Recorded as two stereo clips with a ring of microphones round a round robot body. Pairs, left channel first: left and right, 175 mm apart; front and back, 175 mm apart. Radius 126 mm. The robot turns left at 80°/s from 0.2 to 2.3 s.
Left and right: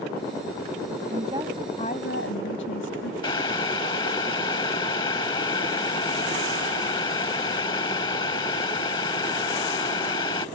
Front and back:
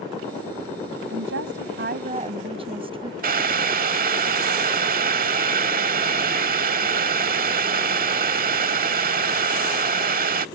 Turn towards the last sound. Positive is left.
turn(degrees=160)